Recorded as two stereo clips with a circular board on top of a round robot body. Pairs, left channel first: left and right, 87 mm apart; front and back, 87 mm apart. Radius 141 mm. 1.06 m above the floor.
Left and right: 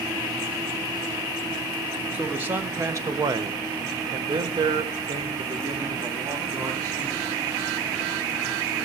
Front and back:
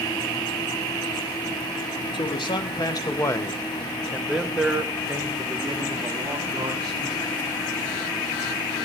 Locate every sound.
2.1 s a man speaking: 20° right, 1.4 m; by 7.3 s 135° right, 2.5 m